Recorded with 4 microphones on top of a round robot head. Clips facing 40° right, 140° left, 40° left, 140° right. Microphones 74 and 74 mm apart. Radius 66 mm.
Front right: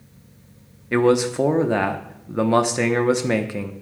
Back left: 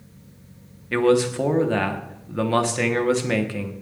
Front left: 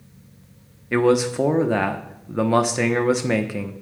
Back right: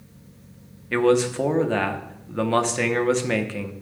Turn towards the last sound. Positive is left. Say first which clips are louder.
# front right 1 dB, front left 1 dB
turn(degrees=-15)